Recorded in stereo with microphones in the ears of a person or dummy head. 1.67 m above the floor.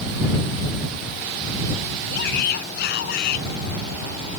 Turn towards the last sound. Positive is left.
turn(degrees=60)  # may be behind; listen again after turning